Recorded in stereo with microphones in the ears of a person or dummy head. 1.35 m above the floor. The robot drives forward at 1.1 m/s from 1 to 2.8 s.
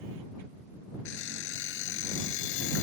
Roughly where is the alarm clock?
Left.